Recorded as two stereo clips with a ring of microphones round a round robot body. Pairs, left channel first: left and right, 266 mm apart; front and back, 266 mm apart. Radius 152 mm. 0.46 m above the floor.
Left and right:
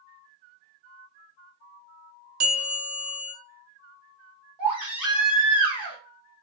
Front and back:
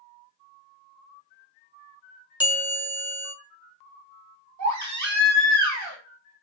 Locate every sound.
2.4 s a bell: 95° right, 1.2 m
4.6 s a baby crying: 175° right, 1.5 m